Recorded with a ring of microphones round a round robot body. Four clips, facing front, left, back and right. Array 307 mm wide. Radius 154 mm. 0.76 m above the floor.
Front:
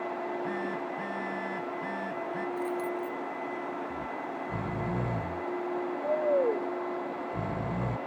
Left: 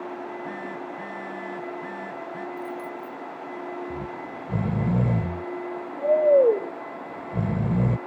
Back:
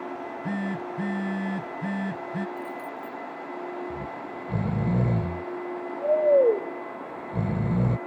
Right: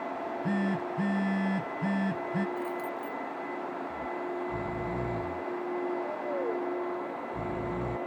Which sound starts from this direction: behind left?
Snoring, at 3.9 s.